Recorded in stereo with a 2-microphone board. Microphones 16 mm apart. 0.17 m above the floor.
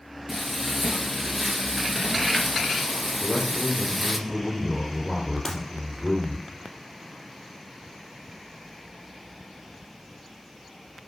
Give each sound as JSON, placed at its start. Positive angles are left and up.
{"t": 0.3, "sound": "frying", "side_deg": -5, "distance_m": 1.5}
{"t": 3.2, "sound": "a man speaking", "side_deg": 10, "distance_m": 3.5}
{"t": 5.5, "sound": "breaking glass", "side_deg": 10, "distance_m": 2.5}